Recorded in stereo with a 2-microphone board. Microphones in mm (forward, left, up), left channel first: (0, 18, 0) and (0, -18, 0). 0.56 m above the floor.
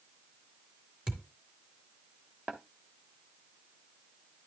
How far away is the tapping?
About 2 m.